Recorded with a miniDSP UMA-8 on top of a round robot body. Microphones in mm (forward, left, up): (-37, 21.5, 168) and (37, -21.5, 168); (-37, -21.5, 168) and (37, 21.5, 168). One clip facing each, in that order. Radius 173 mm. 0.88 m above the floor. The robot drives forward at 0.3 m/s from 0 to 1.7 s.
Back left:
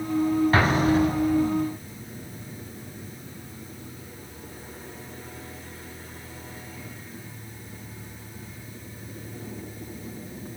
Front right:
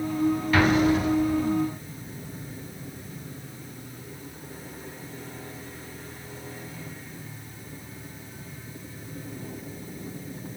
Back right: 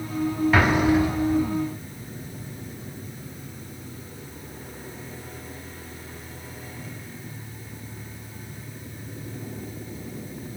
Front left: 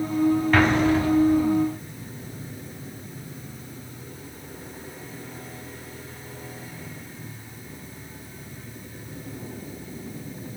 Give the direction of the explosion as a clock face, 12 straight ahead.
8 o'clock.